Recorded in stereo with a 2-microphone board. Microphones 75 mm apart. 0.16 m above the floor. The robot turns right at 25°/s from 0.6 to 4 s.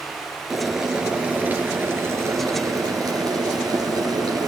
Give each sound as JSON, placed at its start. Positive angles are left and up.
{"t": 0.5, "sound": "boiling", "azimuth_deg": -175, "distance_m": 3.0}